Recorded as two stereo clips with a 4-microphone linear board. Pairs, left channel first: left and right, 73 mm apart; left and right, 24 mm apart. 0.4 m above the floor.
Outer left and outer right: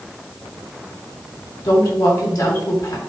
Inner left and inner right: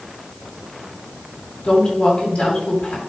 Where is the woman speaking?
65° left (ahead or behind), 4 m.